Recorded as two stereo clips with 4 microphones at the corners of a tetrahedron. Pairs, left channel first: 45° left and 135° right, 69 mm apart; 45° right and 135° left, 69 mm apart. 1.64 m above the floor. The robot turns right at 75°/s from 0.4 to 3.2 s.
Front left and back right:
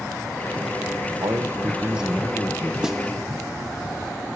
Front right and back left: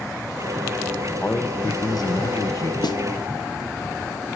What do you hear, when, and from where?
1.2 s a man speaking: 115° right, 1.2 m; by 2.7 s straight ahead, 1.2 m
2.8 s a snare drum: 55° right, 0.7 m; by 3.0 s 35° right, 0.7 m